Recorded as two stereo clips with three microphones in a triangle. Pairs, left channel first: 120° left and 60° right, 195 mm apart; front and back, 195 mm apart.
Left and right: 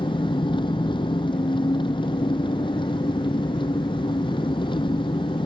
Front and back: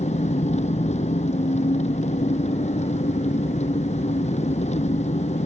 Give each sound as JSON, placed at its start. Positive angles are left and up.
{"t": 0.0, "sound": "an engine running", "azimuth_deg": 55}